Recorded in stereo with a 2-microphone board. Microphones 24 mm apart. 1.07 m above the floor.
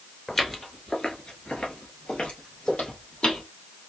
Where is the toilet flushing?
I don't hear a toilet flushing.